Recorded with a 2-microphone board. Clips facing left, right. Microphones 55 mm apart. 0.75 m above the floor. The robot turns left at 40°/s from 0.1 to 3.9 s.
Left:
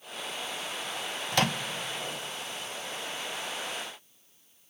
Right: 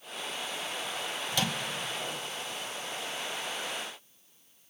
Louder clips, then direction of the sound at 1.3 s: Left 5 dB; 50° left (ahead or behind).